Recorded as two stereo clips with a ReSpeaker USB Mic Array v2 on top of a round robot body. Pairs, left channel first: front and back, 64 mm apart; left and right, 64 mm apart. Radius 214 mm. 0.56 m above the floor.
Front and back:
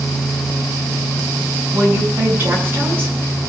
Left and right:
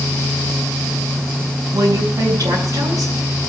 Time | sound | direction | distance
1.7 | a woman speaking | 125° right | 6.5 m